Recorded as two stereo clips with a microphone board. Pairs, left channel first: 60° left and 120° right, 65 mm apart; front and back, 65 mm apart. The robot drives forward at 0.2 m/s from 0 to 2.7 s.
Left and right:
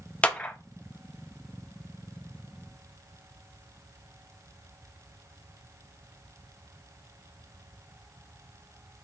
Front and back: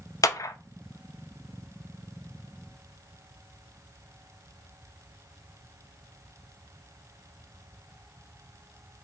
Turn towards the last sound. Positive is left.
turn(degrees=-105)